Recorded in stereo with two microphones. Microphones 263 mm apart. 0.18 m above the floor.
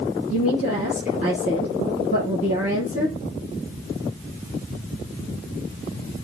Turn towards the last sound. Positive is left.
turn(degrees=30)  # may be behind; listen again after turning